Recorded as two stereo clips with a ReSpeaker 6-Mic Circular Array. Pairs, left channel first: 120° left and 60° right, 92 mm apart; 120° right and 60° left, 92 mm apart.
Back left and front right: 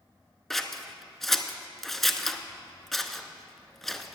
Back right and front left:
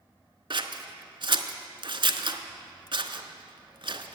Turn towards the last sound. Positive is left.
turn(degrees=35)